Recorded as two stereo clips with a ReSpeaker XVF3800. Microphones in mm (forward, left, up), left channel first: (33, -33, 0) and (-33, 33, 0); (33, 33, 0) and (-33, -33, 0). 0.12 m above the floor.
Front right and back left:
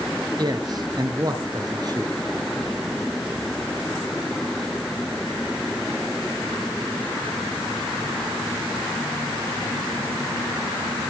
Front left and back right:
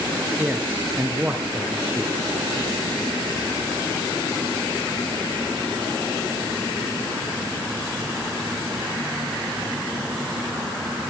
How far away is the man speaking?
About 1.9 m.